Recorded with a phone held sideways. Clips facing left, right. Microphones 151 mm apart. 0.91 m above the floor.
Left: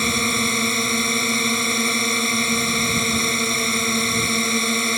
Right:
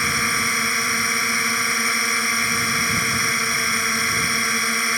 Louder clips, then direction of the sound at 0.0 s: Left 4 dB; 20° left (ahead or behind).